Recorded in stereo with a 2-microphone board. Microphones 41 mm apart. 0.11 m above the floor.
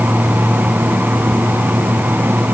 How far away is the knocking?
No knocking in this recording.